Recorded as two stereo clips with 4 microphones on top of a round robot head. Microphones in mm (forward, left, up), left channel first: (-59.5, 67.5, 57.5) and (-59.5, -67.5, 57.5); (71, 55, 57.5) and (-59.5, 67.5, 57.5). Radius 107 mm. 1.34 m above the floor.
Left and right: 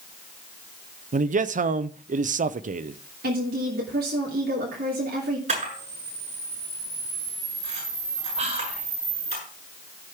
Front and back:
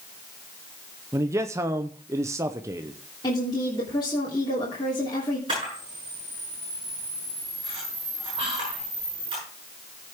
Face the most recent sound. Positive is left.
turn(degrees=-125)